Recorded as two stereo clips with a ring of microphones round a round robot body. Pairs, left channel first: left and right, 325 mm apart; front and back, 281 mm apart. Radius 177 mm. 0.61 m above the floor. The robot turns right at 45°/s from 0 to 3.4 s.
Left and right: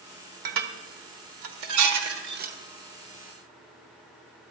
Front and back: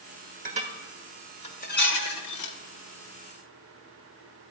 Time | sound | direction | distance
0.5 | dishes clattering | 115° right | 1.4 m